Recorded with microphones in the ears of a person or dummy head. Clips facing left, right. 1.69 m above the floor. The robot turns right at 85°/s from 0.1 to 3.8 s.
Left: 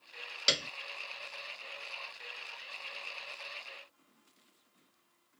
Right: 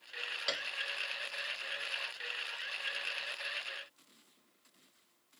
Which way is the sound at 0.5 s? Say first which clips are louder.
Left 5 dB; 45° left (ahead or behind).